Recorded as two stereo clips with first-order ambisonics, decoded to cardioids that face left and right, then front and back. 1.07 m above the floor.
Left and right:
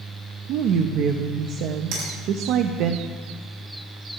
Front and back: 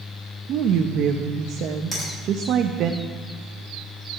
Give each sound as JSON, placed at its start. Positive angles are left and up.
{"t": 0.5, "sound": "a woman speaking", "azimuth_deg": -130, "distance_m": 0.9}
{"t": 1.9, "sound": "a finger snap", "azimuth_deg": -80, "distance_m": 7.5}